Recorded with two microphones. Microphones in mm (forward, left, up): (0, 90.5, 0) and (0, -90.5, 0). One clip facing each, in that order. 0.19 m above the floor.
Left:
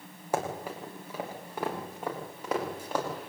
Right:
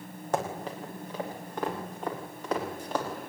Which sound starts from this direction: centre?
Running footsteps, at 0.3 s.